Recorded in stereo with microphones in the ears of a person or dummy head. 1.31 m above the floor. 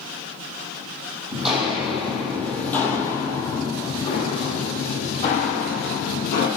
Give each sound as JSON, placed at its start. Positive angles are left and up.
{"t": 1.3, "sound": "footsteps", "side_deg": -5, "distance_m": 2.5}